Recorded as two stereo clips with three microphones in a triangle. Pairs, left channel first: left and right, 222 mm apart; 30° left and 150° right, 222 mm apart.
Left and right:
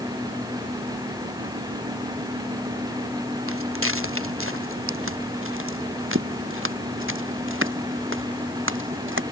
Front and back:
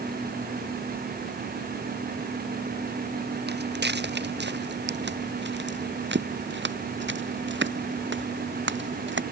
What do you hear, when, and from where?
3.5 s footsteps: 110° right; by 9.2 s 115° right